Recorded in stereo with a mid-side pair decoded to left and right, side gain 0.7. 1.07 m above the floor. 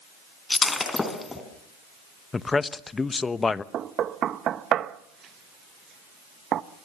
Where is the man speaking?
20° left, 1.0 m.